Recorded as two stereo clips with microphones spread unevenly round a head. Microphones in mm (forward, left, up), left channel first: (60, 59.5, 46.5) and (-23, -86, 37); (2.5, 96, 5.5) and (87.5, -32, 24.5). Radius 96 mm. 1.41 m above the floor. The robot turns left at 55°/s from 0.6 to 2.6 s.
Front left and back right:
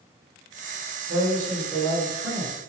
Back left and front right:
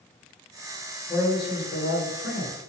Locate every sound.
1.1 s a man speaking: 150° right, 0.8 m; by 2.6 s 130° left, 0.8 m